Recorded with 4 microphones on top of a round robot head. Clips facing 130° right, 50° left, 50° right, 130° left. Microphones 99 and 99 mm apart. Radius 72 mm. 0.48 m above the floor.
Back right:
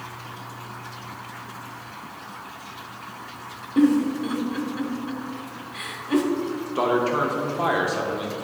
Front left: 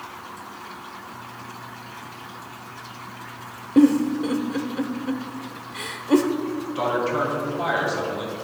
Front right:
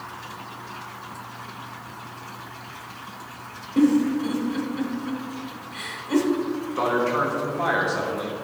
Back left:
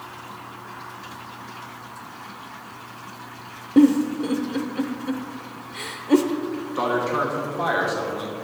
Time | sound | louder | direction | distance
3.8 | a giggle | front left 2 dB, back left 3 dB | 105° left | 0.8 m
6.8 | a man speaking | back right 2 dB, even | 150° right | 1.1 m